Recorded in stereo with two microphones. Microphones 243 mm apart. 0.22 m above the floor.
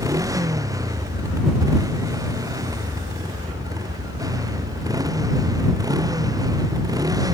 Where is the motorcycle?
15° right (ahead or behind).